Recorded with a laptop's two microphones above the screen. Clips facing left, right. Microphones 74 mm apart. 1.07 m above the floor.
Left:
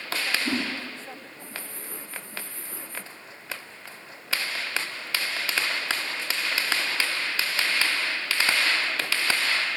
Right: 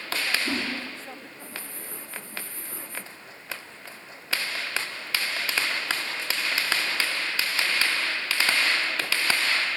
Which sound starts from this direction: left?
A whoosh, at 0.5 s.